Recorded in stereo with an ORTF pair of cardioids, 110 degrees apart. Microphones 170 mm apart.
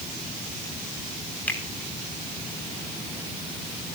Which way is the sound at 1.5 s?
10° left.